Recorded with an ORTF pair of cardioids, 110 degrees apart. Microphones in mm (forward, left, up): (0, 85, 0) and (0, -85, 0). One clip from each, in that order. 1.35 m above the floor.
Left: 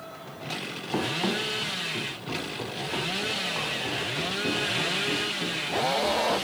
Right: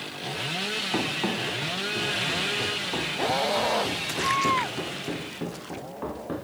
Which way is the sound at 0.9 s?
5° right.